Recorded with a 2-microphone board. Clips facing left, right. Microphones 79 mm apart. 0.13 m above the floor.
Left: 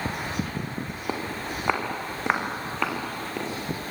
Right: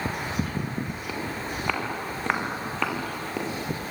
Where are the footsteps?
30° left (ahead or behind), 5.5 m; by 3.9 s 10° right (ahead or behind), 6 m.